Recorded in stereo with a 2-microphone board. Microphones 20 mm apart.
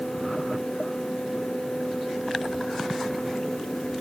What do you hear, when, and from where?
Only background noise.